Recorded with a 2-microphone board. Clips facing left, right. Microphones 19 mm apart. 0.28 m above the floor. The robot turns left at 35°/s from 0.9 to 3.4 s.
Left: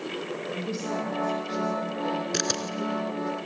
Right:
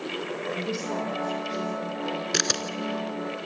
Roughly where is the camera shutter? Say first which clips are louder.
Right 2 dB; centre.